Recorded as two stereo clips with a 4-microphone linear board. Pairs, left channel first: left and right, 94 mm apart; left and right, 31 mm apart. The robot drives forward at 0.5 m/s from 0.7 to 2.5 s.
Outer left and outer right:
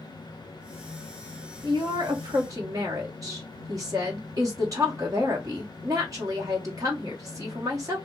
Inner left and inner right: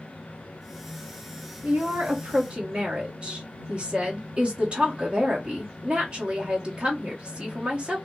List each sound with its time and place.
1.6 s a woman speaking: 55° right (ahead or behind), 0.9 m; by 8.0 s 35° right (ahead or behind), 1.2 m